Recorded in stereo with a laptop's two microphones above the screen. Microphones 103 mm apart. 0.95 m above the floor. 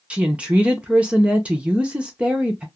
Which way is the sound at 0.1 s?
10° right (ahead or behind).